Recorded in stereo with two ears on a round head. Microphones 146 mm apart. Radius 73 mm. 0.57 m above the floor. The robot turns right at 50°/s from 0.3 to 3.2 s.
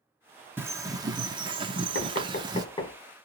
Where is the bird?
155° right, 0.7 m; by 2.6 s 50° right, 0.7 m.